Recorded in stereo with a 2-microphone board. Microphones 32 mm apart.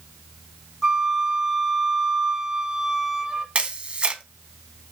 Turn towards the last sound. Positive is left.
turn(degrees=-35)  # may be behind; listen again after turning